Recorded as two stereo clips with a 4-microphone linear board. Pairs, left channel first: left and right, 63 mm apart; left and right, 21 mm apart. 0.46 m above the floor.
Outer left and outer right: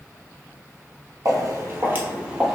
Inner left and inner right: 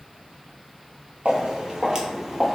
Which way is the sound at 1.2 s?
60° right (ahead or behind).